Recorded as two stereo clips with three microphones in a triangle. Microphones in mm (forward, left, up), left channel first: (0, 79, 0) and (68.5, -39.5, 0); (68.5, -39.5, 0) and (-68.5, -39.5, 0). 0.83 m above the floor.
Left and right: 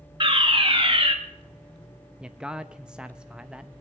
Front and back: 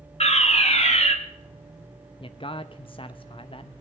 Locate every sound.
0.2 s a fire alarm: 20° right, 2.5 m
2.2 s a man speaking: 20° left, 0.5 m